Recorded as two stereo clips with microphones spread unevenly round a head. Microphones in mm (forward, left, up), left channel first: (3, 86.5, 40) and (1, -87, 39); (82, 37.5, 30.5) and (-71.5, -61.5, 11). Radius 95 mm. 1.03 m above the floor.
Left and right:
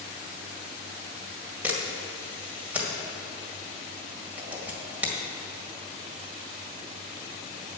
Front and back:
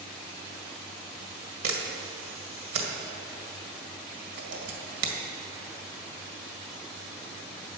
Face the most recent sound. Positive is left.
turn(degrees=-175)